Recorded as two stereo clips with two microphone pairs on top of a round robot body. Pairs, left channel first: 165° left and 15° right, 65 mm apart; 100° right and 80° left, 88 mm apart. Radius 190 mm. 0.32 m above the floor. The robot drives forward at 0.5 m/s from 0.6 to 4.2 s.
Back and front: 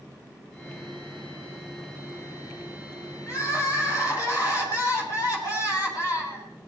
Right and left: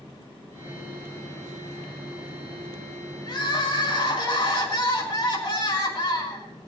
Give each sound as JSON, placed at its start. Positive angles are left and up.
{"t": 3.3, "sound": "crying", "azimuth_deg": -145, "distance_m": 4.0}